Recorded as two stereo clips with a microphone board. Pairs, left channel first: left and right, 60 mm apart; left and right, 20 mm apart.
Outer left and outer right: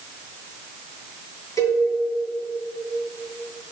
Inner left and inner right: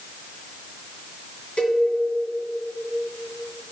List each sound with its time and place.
1.6 s a cowbell: 55° left (ahead or behind), 1.8 m